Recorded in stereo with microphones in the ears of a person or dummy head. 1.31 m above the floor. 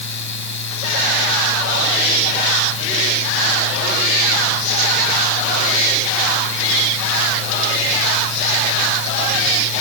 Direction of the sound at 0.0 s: 65° left (ahead or behind).